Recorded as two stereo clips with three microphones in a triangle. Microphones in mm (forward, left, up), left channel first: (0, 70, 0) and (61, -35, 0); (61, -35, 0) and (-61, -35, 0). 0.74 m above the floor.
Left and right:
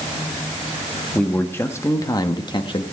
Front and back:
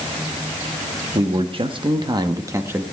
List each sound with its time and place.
1.1 s a man speaking: 165° right, 1.2 m; by 2.8 s 115° left, 1.0 m